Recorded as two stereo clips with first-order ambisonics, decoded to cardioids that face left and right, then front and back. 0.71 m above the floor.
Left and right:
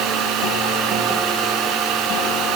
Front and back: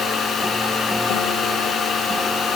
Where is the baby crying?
No baby crying in this recording.